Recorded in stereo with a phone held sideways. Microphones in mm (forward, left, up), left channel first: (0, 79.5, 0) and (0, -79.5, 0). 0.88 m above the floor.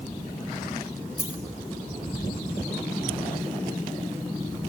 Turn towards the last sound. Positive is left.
turn(degrees=-5)  # may be behind; listen again after turning